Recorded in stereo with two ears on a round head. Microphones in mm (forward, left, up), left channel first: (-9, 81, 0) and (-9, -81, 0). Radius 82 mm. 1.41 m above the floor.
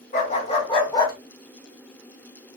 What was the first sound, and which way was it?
A dog barking, 45° left (ahead or behind).